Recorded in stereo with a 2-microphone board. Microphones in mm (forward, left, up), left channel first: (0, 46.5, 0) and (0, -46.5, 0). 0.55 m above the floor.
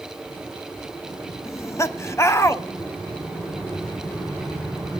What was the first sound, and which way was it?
Laughter, 30° left (ahead or behind).